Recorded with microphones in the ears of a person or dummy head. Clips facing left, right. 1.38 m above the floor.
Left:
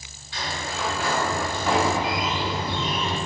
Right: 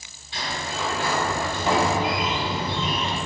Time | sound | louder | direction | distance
0.3 | a sliding door | right 1 dB | 20° right (ahead or behind) | 0.8 m